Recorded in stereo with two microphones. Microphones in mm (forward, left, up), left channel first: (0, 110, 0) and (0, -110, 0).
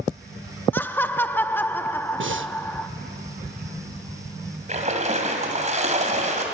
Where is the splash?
35° right (ahead or behind), 2.5 m.